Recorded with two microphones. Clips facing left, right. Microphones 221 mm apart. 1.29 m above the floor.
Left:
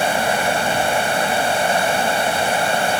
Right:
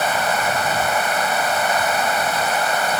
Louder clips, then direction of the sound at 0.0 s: Left 2 dB; 30° left (ahead or behind).